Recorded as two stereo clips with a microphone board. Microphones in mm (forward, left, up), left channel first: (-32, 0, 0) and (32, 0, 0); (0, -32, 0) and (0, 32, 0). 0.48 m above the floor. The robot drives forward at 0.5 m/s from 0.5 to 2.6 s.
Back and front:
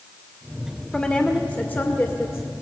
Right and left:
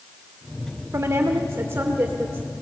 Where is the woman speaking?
110° left, 1.3 m; by 2.5 s 145° left, 1.6 m.